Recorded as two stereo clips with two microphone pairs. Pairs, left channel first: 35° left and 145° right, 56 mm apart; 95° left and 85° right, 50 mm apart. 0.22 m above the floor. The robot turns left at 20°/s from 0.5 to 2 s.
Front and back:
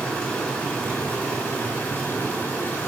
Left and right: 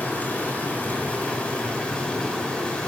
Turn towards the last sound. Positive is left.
turn(degrees=55)